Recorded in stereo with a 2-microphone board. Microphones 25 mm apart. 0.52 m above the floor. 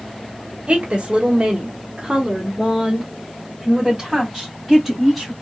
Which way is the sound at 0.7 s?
45° right (ahead or behind).